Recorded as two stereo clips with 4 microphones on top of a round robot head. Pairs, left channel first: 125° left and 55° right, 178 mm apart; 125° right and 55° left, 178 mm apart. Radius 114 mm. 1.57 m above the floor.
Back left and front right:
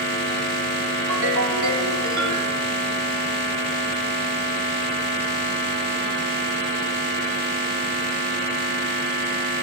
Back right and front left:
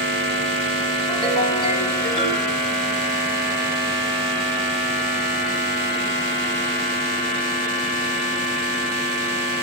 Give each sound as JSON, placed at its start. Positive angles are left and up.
{"t": 1.1, "sound": "a ringtone", "azimuth_deg": -60, "distance_m": 1.7}